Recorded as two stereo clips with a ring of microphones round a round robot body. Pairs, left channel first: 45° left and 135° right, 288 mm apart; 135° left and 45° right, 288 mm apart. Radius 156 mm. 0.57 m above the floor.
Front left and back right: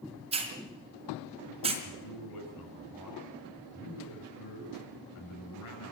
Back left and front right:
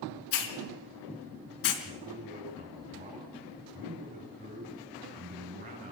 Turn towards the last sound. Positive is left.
turn(degrees=20)